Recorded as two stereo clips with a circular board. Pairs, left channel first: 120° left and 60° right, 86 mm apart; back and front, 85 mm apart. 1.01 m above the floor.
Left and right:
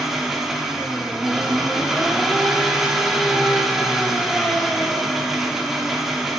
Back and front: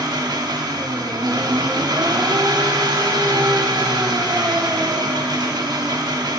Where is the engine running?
25° left, 0.8 m.